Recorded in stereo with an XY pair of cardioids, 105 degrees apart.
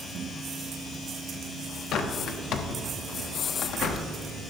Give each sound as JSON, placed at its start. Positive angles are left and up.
{"t": 1.9, "sound": "a bird", "azimuth_deg": 70, "distance_m": 0.8}